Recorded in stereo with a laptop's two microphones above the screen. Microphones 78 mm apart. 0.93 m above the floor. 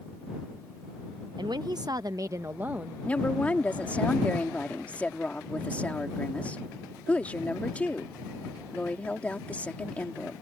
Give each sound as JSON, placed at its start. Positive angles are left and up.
{"t": 1.4, "sound": "a woman speaking", "side_deg": -65}
{"t": 3.0, "sound": "a woman speaking", "side_deg": 15}